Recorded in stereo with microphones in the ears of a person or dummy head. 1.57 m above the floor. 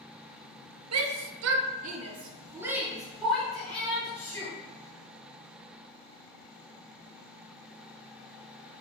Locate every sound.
0.9 s a shout: 85° right, 0.7 m; by 4.5 s 10° left (ahead or behind), 1.7 m